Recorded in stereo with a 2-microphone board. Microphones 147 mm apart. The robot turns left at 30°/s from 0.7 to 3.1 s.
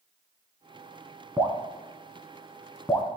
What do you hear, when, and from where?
1.4 s dripping: 25° right (ahead or behind), 1.8 m; by 3.1 s 20° left (ahead or behind), 1.8 m